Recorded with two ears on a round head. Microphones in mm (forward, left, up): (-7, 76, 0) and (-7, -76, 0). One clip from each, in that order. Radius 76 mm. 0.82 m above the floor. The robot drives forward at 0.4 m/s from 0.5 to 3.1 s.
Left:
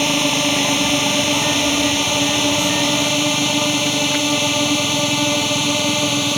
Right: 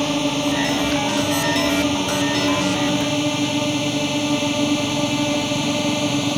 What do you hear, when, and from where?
0.0 s a drone: 55° left (ahead or behind); by 6.4 s 40° left (ahead or behind)